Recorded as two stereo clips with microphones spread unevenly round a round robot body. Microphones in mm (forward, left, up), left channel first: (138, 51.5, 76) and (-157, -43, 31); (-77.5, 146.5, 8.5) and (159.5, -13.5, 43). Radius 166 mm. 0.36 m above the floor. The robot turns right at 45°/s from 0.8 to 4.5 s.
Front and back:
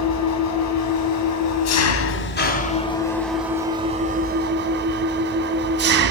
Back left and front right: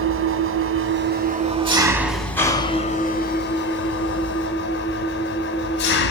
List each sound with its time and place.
0.0 s an engine running: straight ahead, 1.1 m; by 6.1 s 170° left, 1.1 m